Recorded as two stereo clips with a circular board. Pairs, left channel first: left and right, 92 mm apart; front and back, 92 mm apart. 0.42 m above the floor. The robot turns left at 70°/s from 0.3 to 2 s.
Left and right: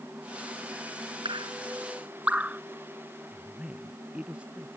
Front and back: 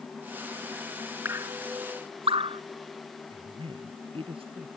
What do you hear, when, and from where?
1.2 s dripping: 115° right; by 2.6 s 165° right
3.3 s a woman speaking: 170° right